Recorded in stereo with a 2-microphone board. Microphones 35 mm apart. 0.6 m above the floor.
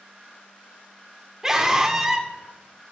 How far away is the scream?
About 1.4 m.